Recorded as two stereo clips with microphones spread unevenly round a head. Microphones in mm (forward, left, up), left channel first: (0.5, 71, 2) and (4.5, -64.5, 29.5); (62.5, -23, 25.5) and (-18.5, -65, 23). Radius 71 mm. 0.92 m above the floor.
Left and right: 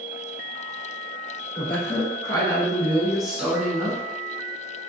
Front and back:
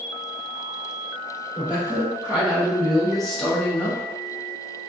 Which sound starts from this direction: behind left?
A woman speaking, at 1.6 s.